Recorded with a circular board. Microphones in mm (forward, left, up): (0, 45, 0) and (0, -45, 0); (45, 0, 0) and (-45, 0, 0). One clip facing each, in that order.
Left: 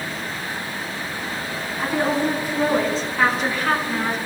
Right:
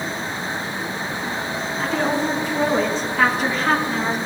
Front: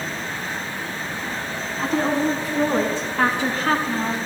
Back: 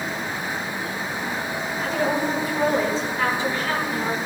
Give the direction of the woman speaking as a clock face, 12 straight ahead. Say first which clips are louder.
Left 1 dB, front 3 dB; 12 o'clock.